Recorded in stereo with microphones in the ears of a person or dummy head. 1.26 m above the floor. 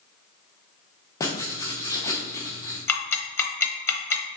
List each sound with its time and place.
1.2 s writing: 25° left (ahead or behind), 0.7 m
2.9 s ticking: 10° left (ahead or behind), 0.8 m